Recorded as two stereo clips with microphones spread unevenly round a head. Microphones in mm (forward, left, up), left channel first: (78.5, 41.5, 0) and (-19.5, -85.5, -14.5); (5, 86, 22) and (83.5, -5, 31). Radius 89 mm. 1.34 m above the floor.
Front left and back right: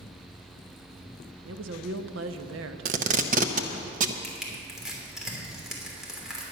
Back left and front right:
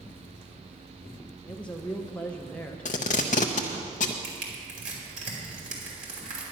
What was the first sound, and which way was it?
A woman speaking, 145° right.